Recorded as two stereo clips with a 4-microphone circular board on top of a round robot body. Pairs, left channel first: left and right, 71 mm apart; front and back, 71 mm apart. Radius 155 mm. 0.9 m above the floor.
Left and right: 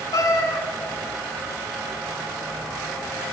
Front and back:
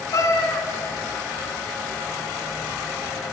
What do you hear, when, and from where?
0.1 s a cat meowing: 50° left, 1.6 m